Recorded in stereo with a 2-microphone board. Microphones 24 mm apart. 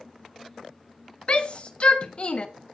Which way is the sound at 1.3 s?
50° left (ahead or behind).